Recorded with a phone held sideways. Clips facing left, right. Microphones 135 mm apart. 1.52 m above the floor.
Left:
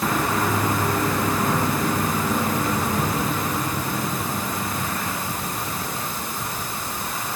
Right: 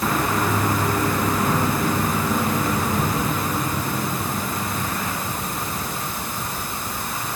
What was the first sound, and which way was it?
Only background noise.